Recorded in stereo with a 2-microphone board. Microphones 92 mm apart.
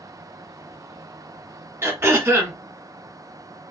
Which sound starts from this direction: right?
Throat clearing, at 1.8 s.